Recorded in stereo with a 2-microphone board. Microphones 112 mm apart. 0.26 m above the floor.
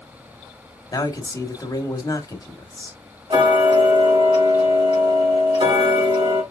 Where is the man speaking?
35° left (ahead or behind), 1.1 m.